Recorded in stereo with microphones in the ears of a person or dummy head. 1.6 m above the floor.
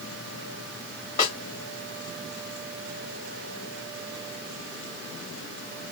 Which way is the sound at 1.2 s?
35° left (ahead or behind).